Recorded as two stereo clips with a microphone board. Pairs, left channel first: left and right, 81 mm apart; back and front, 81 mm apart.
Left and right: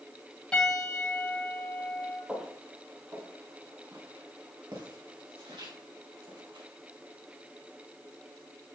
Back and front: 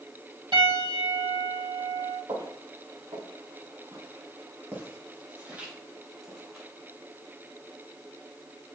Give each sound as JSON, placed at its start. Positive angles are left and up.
{"t": 0.5, "sound": "a piano", "azimuth_deg": 10, "distance_m": 3.0}
{"t": 2.3, "sound": "footsteps", "azimuth_deg": -10, "distance_m": 3.0}